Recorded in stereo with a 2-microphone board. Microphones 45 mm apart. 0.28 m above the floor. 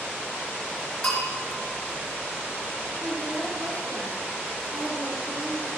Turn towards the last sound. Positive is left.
turn(degrees=-55)  # may be behind; listen again after turning